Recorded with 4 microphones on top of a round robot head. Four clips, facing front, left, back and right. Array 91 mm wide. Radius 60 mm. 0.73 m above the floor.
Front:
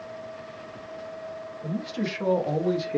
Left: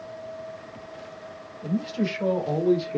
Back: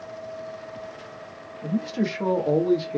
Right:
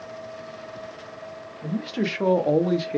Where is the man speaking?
125° right, 1.3 m; by 3.0 s 70° right, 1.2 m.